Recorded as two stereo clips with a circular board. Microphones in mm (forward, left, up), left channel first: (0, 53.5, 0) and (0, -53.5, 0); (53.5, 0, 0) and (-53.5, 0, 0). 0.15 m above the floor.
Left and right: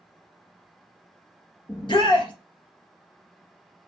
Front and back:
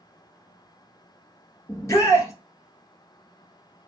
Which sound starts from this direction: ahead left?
A shout, at 1.7 s.